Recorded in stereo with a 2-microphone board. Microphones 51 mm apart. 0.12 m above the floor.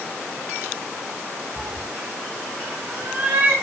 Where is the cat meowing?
20° right (ahead or behind), 0.6 m; by 3.5 s 45° right (ahead or behind), 3 m.